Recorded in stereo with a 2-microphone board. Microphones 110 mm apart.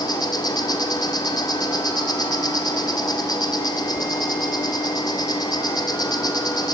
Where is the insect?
40° left (ahead or behind), 0.7 m.